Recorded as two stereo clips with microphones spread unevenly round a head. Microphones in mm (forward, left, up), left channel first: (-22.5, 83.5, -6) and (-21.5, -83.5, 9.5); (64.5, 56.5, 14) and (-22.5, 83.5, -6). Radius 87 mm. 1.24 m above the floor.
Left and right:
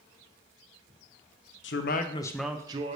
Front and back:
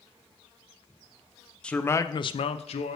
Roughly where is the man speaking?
Ahead left.